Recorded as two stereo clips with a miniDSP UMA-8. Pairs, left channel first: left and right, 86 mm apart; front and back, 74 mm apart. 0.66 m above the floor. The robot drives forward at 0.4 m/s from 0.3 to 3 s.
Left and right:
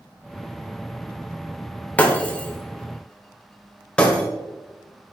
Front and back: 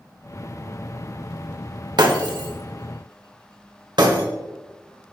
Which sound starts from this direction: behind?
Breaking glass, at 2.0 s.